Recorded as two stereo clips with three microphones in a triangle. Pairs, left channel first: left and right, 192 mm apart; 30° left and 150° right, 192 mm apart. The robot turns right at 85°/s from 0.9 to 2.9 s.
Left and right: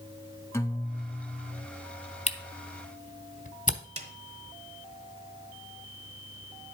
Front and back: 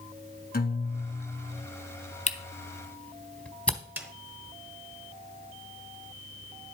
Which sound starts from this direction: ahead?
A guitar, at 0.5 s.